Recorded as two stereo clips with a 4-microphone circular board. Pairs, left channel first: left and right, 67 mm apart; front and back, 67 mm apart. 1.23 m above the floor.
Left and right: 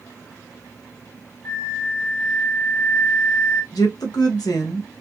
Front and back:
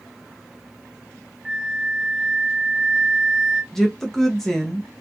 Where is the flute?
105° left, 0.6 m.